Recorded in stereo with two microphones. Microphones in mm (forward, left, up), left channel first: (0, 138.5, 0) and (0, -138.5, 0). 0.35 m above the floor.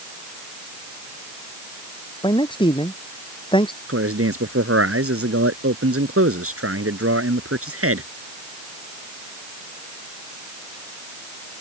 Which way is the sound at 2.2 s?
15° left (ahead or behind).